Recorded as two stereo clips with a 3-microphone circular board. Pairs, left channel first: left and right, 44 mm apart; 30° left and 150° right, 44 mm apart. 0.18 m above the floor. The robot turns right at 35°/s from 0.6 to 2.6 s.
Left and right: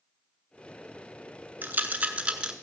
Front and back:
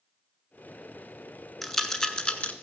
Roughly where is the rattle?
Ahead right.